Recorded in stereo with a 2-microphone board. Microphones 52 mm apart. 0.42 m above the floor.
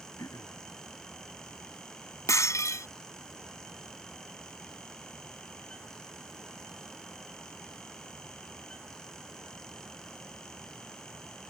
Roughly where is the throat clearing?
Left.